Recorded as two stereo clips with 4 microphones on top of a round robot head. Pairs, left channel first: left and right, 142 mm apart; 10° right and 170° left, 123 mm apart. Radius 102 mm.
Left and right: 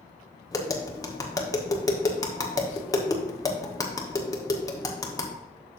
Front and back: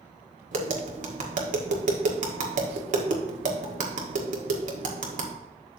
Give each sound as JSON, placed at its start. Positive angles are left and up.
{"t": 0.5, "sound": "tapping", "azimuth_deg": 155, "distance_m": 1.7}